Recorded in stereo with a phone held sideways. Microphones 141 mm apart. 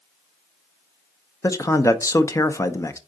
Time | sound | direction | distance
1.4 | a man speaking | 20° left (ahead or behind) | 0.6 m